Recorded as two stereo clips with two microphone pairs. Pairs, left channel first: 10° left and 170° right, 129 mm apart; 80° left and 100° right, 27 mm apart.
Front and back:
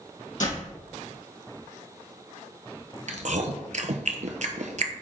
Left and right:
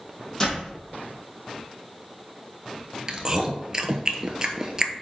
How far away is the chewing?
About 1.1 m.